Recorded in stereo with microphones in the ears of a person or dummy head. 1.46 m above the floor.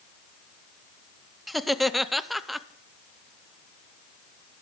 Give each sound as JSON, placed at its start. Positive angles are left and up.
{"t": 1.5, "sound": "laughter", "side_deg": 0, "distance_m": 0.7}